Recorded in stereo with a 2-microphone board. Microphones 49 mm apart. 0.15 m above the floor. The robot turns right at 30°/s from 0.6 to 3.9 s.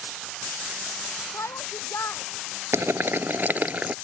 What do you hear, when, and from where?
1.3 s a shout: 80° left; by 2.2 s 60° left (ahead or behind)
2.7 s boiling: 70° right; by 4.0 s 35° right